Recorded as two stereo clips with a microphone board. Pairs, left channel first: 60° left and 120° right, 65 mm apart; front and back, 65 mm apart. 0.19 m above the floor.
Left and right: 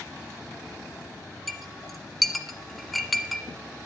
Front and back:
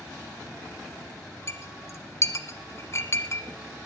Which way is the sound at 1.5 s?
30° right.